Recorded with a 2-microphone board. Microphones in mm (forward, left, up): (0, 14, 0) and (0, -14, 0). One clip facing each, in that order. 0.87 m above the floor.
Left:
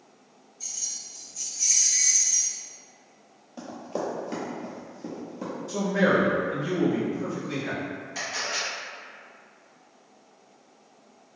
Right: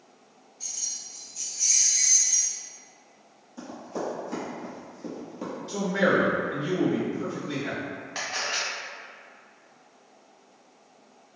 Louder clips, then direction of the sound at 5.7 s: Left 1 dB; 40° right (ahead or behind).